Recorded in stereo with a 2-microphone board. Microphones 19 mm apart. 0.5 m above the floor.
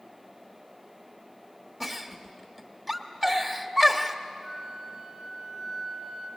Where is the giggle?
10° right (ahead or behind), 1.2 m.